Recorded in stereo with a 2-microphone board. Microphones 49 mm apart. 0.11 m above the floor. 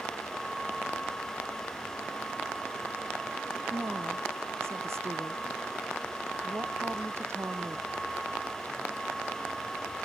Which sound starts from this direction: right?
A woman speaking, at 3.7 s.